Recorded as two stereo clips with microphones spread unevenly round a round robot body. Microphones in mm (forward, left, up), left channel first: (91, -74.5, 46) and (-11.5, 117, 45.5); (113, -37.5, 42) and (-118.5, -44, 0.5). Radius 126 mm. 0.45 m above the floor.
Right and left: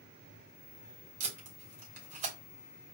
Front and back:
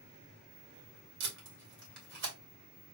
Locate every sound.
1.2 s tape being pulled: 170° left, 2 m